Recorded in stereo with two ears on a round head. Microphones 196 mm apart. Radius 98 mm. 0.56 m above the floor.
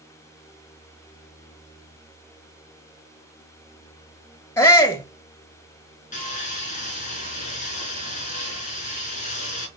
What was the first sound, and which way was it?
A shout, 10° left (ahead or behind).